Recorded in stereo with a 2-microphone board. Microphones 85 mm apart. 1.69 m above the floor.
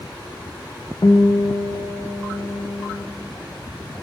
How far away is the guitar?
About 0.5 m.